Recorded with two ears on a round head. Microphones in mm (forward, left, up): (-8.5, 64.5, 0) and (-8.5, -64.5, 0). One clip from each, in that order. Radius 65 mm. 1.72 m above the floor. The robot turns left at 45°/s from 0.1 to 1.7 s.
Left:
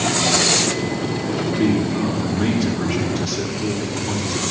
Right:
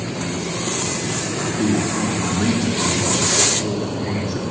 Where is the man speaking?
5° right (ahead or behind), 2.5 m; by 4.4 s 10° right (ahead or behind), 2.5 m.